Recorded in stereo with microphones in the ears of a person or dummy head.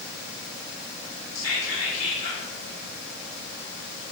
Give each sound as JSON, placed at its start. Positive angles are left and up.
{"t": 1.4, "sound": "whispering", "side_deg": 70, "distance_m": 1.0}